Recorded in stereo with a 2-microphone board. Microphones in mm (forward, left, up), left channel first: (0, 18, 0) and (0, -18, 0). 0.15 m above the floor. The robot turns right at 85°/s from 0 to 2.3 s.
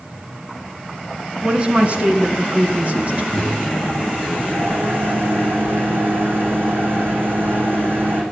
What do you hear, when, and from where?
1.4 s a woman speaking: 150° right, 1.8 m; by 3.2 s 75° right, 1.8 m
3.3 s a microwave: 80° right, 8 m